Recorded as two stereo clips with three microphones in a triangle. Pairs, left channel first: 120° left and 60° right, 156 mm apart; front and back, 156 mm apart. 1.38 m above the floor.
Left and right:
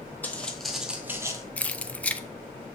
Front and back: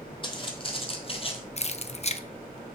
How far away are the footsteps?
About 2 m.